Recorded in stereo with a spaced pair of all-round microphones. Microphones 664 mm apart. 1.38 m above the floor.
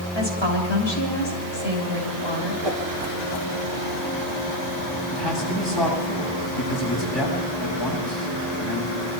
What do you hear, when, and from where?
0.1 s a woman speaking: 40° left (ahead or behind), 7 m
2.6 s a whoosh: 40° right (ahead or behind), 3 m
5.1 s a man speaking: 40° left (ahead or behind), 8 m